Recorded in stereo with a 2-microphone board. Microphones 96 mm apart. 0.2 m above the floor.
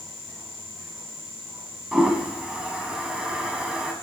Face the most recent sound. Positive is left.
turn(degrees=-10)  # may be behind; listen again after turning